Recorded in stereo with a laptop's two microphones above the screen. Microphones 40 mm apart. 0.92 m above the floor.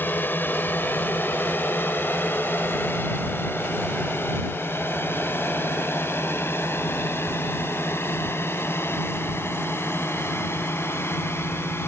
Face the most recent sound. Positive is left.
turn(degrees=75)  # may be behind; listen again after turning